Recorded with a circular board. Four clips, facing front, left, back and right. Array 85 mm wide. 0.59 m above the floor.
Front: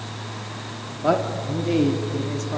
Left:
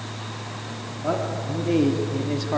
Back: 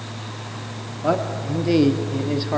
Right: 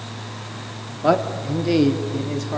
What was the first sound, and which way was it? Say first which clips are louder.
A man speaking: right 7 dB, front 1 dB; 85° right.